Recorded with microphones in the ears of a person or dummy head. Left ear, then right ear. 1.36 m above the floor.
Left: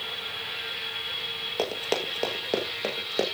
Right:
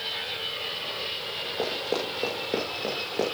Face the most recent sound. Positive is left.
turn(degrees=20)  # may be behind; listen again after turning